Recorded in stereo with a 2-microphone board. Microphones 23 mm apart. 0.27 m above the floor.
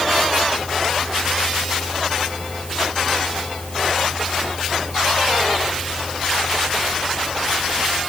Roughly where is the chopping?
No chopping in this recording.